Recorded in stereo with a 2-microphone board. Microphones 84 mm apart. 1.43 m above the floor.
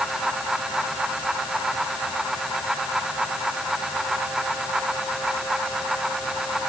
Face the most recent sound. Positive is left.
No sound to turn to.